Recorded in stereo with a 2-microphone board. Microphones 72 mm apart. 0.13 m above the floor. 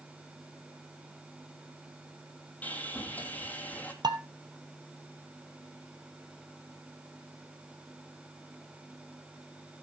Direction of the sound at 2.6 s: 20° left (ahead or behind).